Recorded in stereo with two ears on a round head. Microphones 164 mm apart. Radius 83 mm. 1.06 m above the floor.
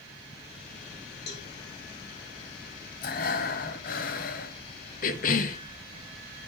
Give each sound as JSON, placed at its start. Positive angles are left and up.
{"t": 1.3, "sound": "a cowbell", "side_deg": 55, "distance_m": 3.5}
{"t": 3.0, "sound": "breathing", "side_deg": 50, "distance_m": 1.4}
{"t": 5.0, "sound": "a cough", "side_deg": 45, "distance_m": 1.1}